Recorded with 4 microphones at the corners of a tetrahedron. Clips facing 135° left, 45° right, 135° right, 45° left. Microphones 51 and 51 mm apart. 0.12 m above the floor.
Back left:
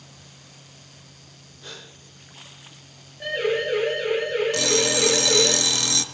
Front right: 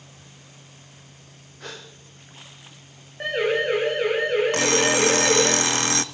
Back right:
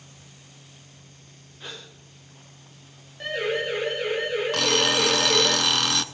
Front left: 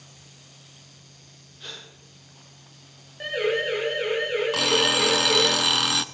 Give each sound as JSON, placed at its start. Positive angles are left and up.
{"t": 1.6, "sound": "a gasp", "azimuth_deg": -60, "distance_m": 4.5}
{"t": 3.2, "sound": "a siren", "azimuth_deg": -30, "distance_m": 8.5}
{"t": 4.5, "sound": "an alarm clock", "azimuth_deg": -40, "distance_m": 0.5}